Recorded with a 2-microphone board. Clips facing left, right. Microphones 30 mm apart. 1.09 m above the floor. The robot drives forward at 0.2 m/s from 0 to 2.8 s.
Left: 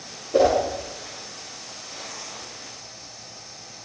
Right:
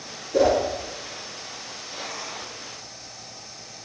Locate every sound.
0.3 s a whoosh: 50° left (ahead or behind), 1.1 m